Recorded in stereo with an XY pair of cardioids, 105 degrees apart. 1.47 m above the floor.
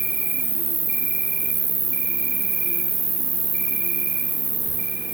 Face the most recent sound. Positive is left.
turn(degrees=-45)